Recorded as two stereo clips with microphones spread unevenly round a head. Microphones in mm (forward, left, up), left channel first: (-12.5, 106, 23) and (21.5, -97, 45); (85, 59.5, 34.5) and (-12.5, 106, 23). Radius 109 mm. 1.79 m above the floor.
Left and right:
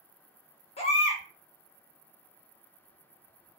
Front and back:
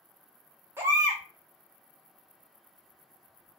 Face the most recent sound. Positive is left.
turn(degrees=105)